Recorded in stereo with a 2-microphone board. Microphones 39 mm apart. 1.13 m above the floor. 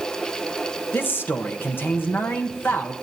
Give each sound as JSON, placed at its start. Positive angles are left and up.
{"t": 0.9, "sound": "a man speaking", "side_deg": 65, "distance_m": 1.2}